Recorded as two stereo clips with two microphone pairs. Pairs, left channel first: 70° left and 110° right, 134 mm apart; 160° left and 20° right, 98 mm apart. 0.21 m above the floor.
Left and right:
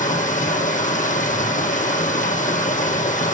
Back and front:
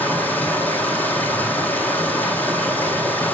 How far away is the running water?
About 1.5 m.